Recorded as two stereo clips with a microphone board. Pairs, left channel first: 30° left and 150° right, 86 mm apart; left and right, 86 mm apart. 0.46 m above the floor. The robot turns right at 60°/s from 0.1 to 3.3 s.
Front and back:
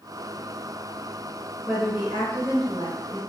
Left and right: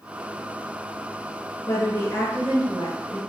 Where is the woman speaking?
120° left, 1.6 m; by 3.2 s 145° right, 1.6 m.